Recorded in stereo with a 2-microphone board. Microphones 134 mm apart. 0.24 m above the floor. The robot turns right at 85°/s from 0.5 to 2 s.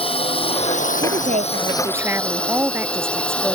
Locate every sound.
0.0 s a drone: 45° left; by 3.5 s 170° left
1.0 s a woman speaking: 100° right; by 3.5 s 20° right